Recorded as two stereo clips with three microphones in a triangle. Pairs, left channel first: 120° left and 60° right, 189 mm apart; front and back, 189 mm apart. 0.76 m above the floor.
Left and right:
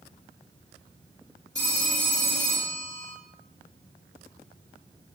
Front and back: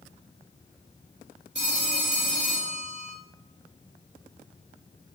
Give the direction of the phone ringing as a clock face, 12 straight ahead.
4 o'clock.